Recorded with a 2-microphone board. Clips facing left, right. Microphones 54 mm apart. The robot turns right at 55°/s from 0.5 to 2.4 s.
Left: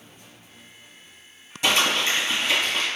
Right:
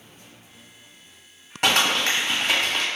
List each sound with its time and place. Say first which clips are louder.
1.6 s crumpling: right 1 dB; 60° right (ahead or behind), 1.2 m; by 2.9 s 70° right (ahead or behind), 1.2 m